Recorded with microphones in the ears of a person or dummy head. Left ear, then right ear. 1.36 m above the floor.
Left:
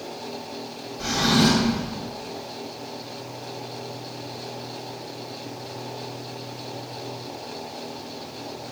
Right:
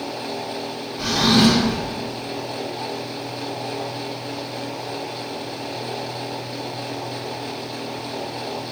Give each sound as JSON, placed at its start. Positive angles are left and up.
{"t": 1.0, "sound": "a drawer", "side_deg": -55, "distance_m": 1.0}